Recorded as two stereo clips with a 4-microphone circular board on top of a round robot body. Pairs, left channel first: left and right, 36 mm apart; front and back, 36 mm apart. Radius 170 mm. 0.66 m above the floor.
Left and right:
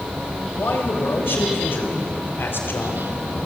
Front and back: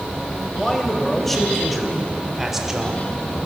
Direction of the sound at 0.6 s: 80° left.